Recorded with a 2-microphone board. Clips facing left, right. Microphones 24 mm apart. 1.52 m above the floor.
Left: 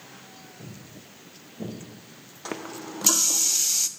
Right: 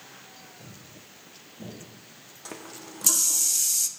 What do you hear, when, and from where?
0.6 s footsteps: 45° left (ahead or behind), 5.5 m; by 1.7 s 35° left (ahead or behind), 6.5 m
2.5 s a running tap: 30° left (ahead or behind), 0.5 m